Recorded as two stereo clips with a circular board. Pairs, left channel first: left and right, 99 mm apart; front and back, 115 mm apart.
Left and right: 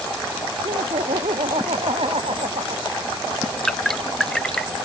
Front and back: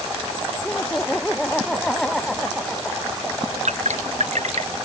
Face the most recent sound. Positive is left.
turn(degrees=175)